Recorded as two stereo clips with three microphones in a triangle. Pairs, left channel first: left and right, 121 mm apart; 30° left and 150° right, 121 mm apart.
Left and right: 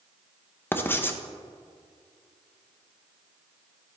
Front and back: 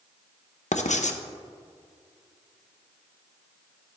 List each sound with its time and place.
0.7 s writing: 20° left, 0.6 m